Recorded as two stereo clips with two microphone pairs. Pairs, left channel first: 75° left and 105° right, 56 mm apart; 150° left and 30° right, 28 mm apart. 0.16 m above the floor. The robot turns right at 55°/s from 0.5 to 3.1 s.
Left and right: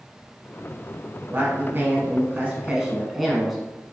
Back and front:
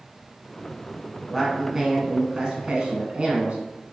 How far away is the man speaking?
About 1.3 m.